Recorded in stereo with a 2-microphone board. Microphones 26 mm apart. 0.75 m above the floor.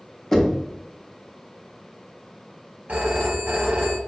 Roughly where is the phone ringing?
Right.